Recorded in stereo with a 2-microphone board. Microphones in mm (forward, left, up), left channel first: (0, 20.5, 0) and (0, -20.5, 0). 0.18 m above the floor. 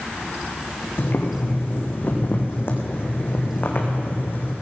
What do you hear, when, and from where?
1.0 s boiling: 55° left (ahead or behind), 2.5 m